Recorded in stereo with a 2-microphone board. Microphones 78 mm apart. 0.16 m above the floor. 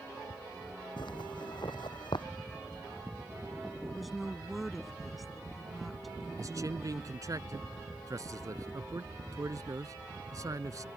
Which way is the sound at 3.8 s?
Centre (ahead or behind).